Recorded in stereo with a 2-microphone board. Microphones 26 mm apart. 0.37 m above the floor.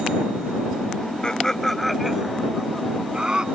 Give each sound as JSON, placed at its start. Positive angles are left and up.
{"t": 1.2, "sound": "laughter", "side_deg": 35}